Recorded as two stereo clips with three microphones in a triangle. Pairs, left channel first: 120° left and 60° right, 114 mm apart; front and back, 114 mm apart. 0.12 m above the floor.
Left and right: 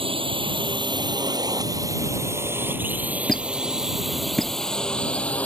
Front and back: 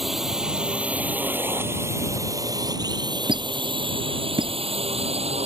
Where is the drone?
90° right; by 5.5 s 160° right.